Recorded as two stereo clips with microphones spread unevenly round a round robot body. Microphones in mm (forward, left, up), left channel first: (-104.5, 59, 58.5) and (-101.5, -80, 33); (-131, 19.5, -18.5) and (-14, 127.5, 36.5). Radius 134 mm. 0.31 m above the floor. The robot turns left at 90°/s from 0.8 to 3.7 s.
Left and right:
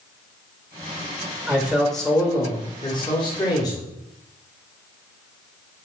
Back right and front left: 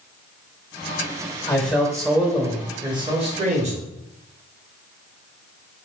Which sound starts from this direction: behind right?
A man speaking, at 1.5 s.